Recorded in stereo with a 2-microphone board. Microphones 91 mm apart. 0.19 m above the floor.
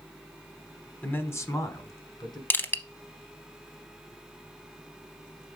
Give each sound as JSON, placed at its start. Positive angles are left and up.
{"t": 1.0, "sound": "a man speaking", "side_deg": 20, "distance_m": 1.0}
{"t": 2.5, "sound": "crushing", "side_deg": 20, "distance_m": 0.6}